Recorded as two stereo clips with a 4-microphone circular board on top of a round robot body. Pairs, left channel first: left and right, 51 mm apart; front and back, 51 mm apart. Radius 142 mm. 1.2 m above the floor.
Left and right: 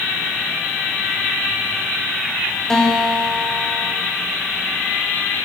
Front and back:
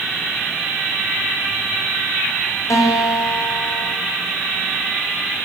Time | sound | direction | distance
2.7 | a guitar | 10° left | 3.5 m